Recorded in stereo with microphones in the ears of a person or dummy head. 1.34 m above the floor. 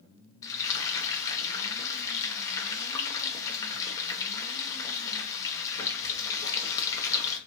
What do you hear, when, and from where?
0.4 s frying: 15° left (ahead or behind), 0.8 m